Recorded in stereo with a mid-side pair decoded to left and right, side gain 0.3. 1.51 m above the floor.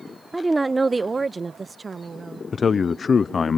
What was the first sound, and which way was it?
A woman speaking, 5° right.